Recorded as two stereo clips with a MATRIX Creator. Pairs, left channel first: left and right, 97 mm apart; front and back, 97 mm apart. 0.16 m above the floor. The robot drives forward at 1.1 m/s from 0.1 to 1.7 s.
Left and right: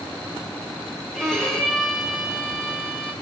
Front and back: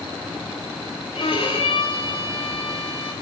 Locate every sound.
1.1 s a violin: 5° left, 3.5 m